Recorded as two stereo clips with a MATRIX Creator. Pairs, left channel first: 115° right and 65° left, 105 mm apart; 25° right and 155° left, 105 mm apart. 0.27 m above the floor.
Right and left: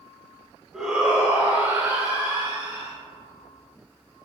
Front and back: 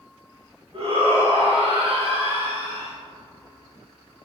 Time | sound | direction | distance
0.7 | a shout | 150° left | 1.5 m